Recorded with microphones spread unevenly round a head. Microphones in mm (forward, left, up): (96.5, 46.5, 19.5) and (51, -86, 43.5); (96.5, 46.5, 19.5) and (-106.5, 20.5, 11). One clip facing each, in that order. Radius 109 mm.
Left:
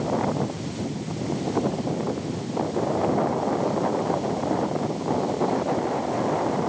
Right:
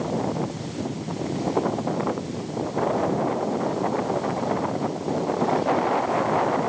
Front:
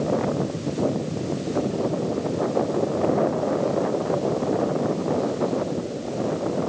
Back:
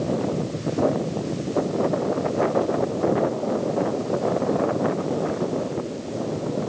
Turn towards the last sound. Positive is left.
No sound to turn to.